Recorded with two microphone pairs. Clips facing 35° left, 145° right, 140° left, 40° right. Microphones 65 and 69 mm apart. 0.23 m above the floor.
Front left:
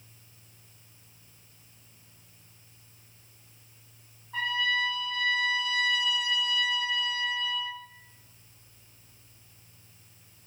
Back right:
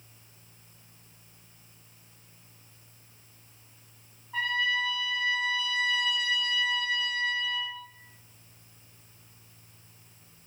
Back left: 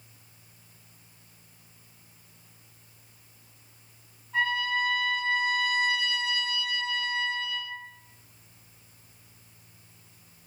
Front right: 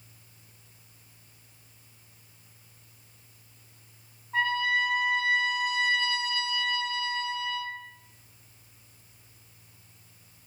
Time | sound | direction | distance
4.3 | a trumpet | 60° right | 1.5 m